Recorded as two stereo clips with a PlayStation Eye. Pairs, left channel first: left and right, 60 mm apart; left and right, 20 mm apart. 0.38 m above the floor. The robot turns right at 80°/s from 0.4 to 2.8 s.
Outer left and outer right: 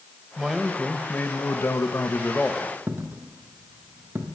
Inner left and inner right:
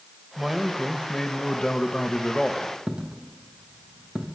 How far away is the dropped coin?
About 2.5 m.